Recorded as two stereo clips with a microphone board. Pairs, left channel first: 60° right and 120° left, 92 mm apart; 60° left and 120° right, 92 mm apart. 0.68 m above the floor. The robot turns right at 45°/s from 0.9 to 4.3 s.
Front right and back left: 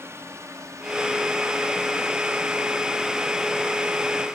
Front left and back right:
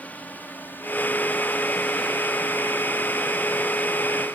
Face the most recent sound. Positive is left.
turn(degrees=-105)